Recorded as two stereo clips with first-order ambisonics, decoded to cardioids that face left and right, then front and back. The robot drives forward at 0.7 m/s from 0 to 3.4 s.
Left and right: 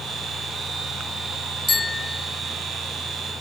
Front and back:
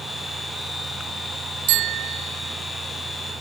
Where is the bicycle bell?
165° left.